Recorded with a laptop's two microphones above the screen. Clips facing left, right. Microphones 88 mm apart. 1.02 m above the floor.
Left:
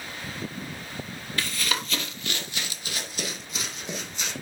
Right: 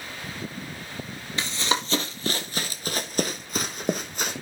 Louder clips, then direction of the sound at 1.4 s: Right 3 dB; 25° right (ahead or behind).